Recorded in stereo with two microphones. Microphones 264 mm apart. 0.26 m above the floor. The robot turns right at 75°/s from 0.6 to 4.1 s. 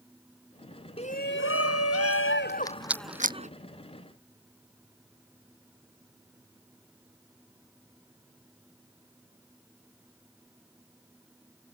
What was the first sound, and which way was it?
A shout, 25° left.